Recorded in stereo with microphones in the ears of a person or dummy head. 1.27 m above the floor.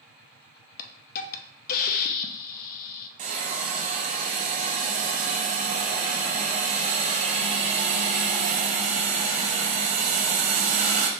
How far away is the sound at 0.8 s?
About 0.5 m.